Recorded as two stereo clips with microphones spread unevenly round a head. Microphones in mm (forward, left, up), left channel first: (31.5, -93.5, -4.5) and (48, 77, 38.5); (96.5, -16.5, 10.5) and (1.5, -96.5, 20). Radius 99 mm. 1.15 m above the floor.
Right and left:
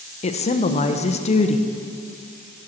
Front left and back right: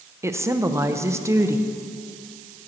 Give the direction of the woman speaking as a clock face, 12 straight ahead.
2 o'clock.